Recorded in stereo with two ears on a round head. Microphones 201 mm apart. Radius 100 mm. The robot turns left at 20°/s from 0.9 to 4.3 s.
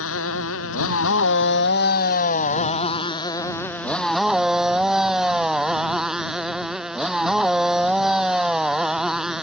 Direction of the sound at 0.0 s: 65° left.